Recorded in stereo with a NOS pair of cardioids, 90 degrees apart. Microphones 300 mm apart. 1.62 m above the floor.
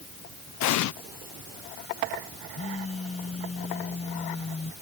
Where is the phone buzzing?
20° left.